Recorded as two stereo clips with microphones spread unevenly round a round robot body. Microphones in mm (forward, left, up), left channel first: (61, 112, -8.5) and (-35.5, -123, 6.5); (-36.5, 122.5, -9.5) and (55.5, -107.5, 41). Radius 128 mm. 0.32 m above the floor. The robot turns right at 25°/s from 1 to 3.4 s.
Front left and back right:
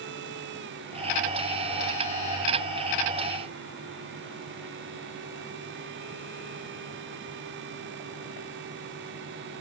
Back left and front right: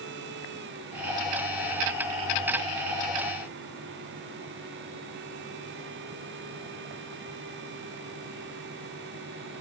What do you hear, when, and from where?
Only background noise.